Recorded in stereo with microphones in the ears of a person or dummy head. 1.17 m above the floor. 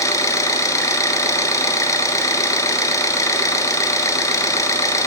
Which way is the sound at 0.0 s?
15° left (ahead or behind).